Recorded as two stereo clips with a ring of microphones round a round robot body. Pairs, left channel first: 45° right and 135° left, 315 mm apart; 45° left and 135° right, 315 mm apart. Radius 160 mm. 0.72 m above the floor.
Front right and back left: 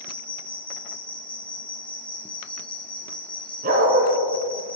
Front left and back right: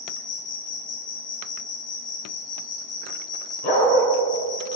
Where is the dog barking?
70° left, 2.5 m.